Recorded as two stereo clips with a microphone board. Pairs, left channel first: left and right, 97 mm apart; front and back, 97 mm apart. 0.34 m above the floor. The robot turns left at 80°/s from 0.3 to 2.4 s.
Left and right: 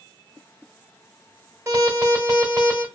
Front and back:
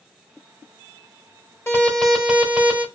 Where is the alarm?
45° right, 1.0 m; by 2.9 s 105° right, 1.0 m.